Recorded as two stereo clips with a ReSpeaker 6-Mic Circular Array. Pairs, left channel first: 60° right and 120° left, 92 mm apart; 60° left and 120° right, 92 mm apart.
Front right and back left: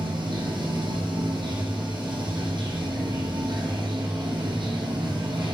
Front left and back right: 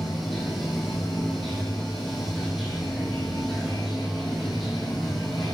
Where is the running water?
150° left, 2.5 m.